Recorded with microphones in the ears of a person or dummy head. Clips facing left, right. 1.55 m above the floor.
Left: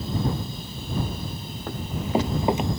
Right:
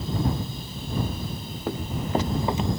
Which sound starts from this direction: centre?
Running footsteps, at 1.7 s.